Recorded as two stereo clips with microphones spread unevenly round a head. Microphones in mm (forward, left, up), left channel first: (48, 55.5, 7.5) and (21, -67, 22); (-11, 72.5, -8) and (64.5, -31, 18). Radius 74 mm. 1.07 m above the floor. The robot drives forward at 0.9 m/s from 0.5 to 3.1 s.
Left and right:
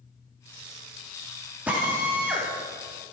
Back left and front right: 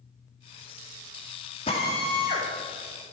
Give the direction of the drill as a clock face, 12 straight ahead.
6 o'clock.